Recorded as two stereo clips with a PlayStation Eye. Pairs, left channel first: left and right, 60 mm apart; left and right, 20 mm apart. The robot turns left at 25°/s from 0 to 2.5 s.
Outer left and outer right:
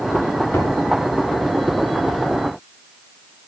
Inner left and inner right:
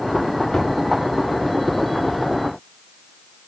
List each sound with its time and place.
0.5 s knocking: 40° left (ahead or behind), 4 m; by 0.8 s 50° left (ahead or behind), 4 m